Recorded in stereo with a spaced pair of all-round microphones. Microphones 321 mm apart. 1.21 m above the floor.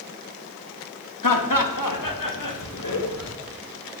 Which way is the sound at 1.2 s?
75° left (ahead or behind).